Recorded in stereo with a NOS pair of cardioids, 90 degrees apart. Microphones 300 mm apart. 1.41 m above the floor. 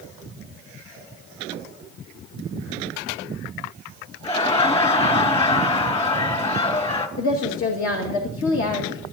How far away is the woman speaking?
About 2 m.